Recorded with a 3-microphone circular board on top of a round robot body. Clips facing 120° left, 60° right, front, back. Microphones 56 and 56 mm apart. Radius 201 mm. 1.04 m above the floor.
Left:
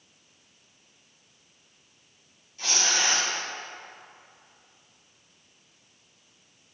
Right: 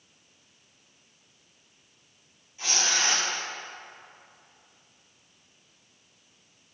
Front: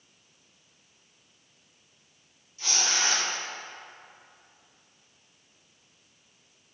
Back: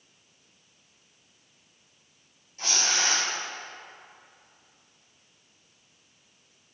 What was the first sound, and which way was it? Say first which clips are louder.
Tearing paper: left 1 dB, back 1 dB; 140° right.